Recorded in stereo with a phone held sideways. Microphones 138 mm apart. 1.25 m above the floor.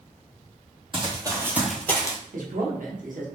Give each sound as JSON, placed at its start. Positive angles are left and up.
{"t": 0.9, "sound": "running footsteps", "side_deg": -40, "distance_m": 1.7}
{"t": 2.3, "sound": "a man speaking", "side_deg": -70, "distance_m": 1.1}